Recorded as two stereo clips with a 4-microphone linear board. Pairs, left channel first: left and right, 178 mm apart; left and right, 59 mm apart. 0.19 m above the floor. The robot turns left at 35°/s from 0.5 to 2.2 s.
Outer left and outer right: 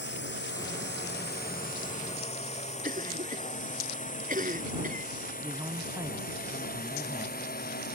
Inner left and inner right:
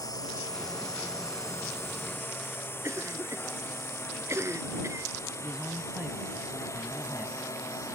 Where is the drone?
80° left; by 8.0 s 60° left (ahead or behind).